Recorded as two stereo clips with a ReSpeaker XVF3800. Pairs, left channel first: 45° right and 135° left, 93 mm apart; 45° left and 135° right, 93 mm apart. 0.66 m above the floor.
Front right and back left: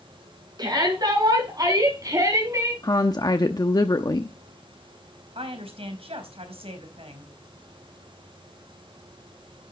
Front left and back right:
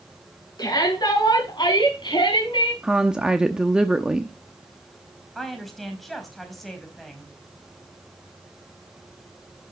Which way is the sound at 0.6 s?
90° left.